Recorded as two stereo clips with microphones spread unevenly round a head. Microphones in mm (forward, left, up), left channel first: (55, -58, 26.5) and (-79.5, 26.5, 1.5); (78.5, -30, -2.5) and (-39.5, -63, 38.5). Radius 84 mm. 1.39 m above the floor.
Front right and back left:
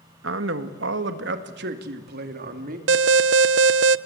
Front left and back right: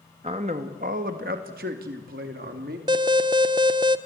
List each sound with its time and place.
0.2 s a man speaking: 140° left, 1.7 m; by 2.8 s 175° right, 2.5 m
2.9 s an alarm: 150° left, 0.5 m